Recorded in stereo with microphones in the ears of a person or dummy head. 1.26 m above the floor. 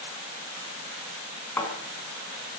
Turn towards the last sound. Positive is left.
turn(degrees=5)  # may be behind; listen again after turning